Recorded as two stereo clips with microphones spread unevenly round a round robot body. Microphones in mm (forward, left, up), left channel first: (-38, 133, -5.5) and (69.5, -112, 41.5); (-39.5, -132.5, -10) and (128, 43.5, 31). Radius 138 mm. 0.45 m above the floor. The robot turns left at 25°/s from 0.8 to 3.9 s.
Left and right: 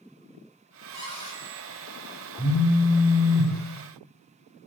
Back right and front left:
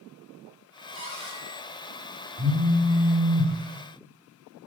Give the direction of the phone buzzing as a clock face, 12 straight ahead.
12 o'clock.